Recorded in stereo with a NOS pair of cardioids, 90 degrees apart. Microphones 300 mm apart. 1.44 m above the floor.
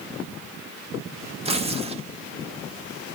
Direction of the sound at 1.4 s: 20° right.